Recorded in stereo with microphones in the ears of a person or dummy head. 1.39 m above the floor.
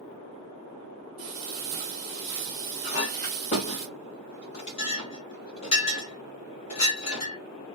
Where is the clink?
35° left (ahead or behind), 1.3 m.